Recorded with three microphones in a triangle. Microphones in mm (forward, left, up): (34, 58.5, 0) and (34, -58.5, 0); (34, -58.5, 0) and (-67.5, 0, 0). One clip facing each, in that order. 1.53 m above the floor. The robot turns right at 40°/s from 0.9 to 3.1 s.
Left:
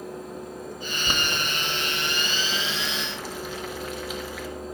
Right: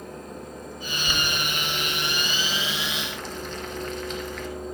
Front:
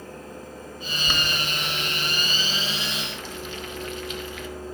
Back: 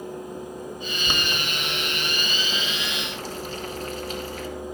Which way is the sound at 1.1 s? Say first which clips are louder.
Even, even; 90° left.